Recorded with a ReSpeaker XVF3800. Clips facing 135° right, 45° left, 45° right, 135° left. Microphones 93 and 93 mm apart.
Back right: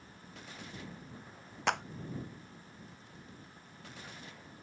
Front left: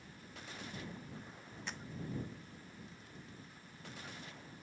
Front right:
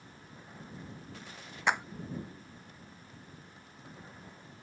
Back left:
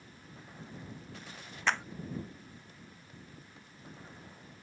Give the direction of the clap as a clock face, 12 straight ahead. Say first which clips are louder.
Back right 17 dB, front right 2 dB; 4 o'clock.